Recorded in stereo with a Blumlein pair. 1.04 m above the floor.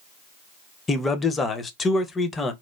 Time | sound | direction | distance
0.9 | a man speaking | 15° left | 0.5 m